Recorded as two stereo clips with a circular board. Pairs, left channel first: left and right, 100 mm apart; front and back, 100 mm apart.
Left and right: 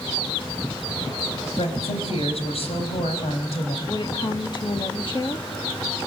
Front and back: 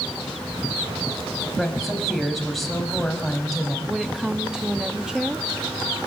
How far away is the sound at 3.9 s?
About 1.6 m.